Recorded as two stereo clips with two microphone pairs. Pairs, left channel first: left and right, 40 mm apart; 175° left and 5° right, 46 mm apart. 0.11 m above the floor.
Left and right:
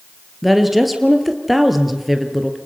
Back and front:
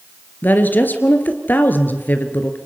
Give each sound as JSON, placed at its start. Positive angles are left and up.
{"t": 0.4, "sound": "a woman speaking", "azimuth_deg": -175, "distance_m": 2.0}